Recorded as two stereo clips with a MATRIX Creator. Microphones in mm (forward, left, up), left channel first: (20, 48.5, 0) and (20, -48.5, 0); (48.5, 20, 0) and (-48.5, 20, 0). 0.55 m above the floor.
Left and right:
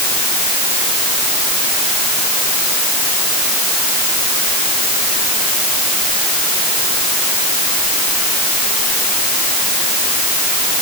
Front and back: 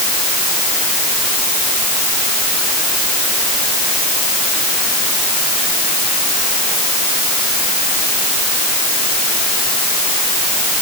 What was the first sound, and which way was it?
Only background noise.